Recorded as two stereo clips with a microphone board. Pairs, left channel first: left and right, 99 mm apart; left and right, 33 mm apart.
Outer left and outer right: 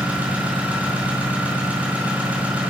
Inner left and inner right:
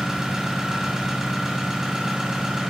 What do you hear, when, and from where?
0.0 s an engine running: 15° right (ahead or behind), 2.5 m